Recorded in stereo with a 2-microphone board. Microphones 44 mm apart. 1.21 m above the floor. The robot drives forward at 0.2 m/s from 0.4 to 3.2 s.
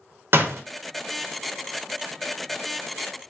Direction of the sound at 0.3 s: 55° right (ahead or behind).